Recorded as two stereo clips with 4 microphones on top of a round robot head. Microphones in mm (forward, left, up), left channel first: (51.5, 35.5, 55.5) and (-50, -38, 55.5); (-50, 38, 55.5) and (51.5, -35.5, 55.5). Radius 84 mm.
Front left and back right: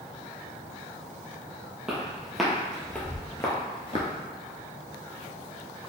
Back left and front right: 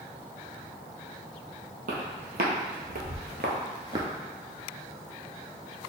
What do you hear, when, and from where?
1.9 s footsteps: 60° right, 1.2 m; by 4.1 s 20° left, 0.5 m